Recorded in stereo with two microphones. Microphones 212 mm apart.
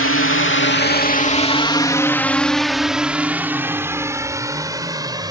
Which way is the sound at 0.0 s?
85° left.